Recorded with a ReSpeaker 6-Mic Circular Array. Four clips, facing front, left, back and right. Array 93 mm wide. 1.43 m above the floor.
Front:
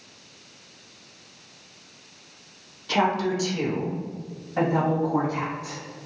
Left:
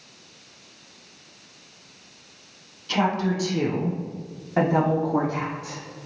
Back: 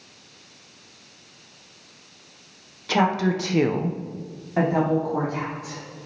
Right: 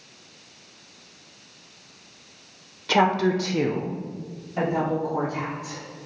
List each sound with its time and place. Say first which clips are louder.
2.9 s a woman speaking: right 3 dB, back 2 dB; 120° right, 1.2 m; by 5.8 s 100° left, 2.5 m